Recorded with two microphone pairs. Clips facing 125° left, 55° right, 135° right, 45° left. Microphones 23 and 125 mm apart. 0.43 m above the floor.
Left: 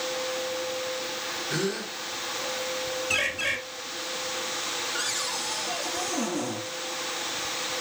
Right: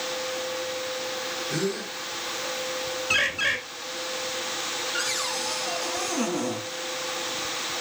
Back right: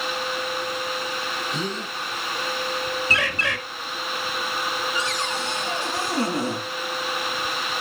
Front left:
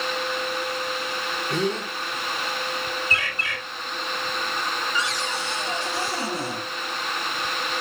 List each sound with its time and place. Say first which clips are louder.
1.5 s a gasp: even, front left 4 dB; 30° left, 4 m
3.1 s a bird: right 4 dB, back right 4 dB; 125° right, 1.1 m
4.9 s a cupboard door: right 2 dB, back right 1 dB; 100° right, 3.5 m